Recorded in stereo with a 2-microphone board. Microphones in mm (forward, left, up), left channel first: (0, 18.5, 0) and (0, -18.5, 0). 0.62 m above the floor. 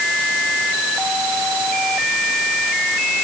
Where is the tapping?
I don't hear tapping.